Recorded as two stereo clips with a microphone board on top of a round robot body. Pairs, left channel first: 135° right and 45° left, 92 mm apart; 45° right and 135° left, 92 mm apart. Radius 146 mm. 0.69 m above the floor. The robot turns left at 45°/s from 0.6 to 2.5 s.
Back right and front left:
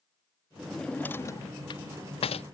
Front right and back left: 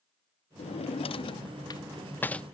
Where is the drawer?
45° right; by 2.4 s 125° right.